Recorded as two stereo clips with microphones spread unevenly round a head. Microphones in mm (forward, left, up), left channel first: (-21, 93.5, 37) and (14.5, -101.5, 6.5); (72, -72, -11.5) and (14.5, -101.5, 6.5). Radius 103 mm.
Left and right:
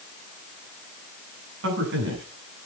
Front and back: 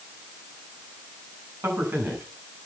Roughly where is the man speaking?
Right.